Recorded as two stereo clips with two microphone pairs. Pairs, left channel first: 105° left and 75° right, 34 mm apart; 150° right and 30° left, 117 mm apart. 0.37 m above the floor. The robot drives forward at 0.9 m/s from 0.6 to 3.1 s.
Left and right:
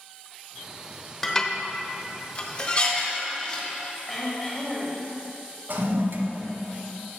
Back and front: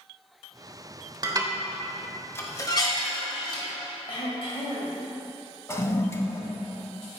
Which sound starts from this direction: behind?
Throat clearing, at 4.1 s.